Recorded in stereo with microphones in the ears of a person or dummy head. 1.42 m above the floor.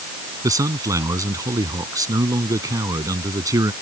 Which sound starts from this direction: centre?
A man speaking, at 0.4 s.